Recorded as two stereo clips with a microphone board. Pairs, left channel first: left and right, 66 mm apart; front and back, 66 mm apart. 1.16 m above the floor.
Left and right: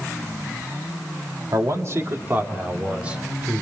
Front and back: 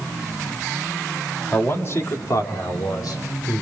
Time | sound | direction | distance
1.5 | a man speaking | 55° right | 2 m